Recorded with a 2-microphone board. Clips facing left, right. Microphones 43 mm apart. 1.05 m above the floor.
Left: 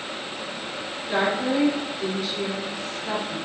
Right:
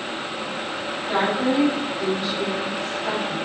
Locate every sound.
1.1 s a woman speaking: 35° right (ahead or behind), 1.0 m